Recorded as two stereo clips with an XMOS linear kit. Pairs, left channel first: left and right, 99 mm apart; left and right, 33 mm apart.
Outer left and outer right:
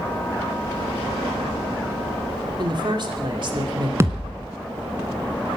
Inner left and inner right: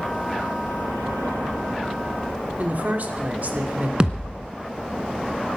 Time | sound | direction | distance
2.6 | a woman speaking | 50° right (ahead or behind) | 2.5 m
4.0 | a thud | 25° right (ahead or behind) | 1.4 m